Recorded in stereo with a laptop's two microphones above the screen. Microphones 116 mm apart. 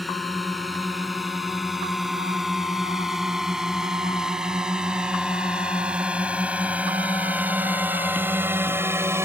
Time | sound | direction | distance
0.0 | a drone | centre (ahead or behind) | ?